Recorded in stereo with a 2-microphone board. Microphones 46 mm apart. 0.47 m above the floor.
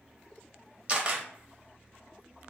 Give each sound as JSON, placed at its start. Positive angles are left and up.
{"t": 0.9, "sound": "a camera shutter", "side_deg": -25, "distance_m": 0.7}